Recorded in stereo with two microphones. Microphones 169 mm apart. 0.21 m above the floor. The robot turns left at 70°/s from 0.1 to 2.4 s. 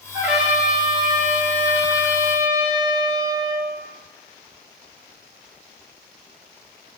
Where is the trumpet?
160° right, 0.8 m; by 3.6 s 40° left, 0.8 m.